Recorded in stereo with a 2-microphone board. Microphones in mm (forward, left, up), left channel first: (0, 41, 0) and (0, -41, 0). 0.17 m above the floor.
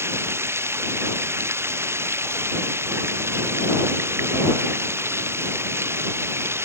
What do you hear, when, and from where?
0.0 s running water: 30° right (ahead or behind)